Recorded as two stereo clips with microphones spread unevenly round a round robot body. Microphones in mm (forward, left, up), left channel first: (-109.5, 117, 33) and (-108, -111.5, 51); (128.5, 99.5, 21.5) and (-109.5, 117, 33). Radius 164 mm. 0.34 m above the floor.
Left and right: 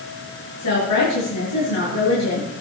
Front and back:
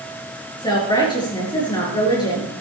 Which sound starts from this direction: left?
A woman speaking, at 0.6 s.